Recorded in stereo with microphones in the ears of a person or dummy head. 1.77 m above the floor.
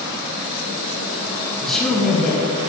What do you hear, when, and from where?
1.6 s a man speaking: centre (ahead or behind), 2.5 m